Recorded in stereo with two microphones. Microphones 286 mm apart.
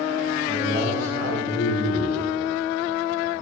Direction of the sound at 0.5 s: 70° right (ahead or behind).